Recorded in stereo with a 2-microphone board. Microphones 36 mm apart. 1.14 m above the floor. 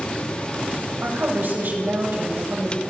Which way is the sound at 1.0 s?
65° right (ahead or behind).